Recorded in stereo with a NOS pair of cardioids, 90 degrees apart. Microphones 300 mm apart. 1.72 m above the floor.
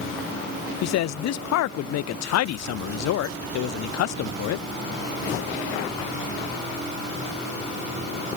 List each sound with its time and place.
0.8 s a man speaking: 60° left, 0.6 m